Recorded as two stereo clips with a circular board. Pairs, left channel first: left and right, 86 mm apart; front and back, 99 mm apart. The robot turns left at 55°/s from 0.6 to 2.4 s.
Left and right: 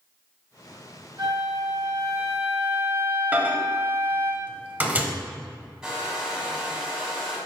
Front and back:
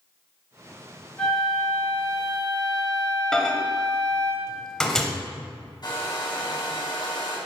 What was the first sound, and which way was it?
A flute, 75° right.